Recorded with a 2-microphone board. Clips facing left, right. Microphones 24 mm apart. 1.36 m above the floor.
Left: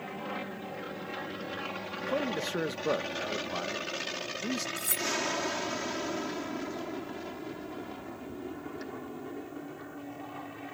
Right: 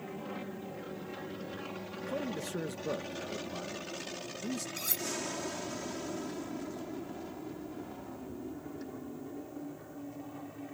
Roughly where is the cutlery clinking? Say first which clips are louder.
Left 4 dB; right.